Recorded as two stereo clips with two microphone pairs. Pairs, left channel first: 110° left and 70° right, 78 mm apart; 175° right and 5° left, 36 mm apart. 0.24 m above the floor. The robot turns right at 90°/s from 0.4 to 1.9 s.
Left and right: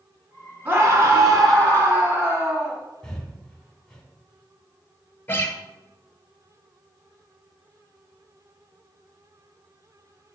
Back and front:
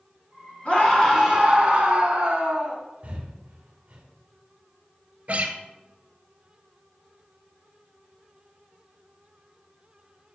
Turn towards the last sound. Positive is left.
turn(degrees=45)